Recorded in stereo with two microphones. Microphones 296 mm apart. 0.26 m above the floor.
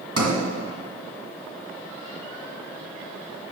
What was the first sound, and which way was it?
A sliding door, 55° right (ahead or behind).